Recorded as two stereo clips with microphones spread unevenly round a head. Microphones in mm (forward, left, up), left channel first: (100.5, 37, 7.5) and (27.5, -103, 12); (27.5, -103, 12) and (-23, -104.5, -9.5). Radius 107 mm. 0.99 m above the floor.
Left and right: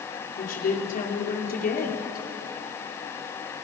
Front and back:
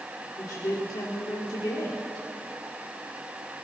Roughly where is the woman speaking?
Ahead left.